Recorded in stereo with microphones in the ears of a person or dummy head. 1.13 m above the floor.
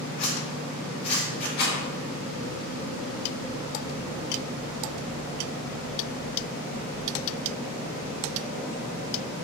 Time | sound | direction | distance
0.2 | a zipper | 35° left (ahead or behind) | 4 m
1.6 | a rattle | 55° left (ahead or behind) | 4.5 m